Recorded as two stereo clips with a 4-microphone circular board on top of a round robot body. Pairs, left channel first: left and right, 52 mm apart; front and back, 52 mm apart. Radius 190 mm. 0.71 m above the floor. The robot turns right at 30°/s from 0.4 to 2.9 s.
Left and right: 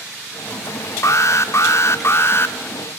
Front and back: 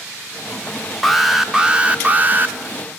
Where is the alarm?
90° left, 0.9 m; by 2.5 s 135° left, 0.9 m.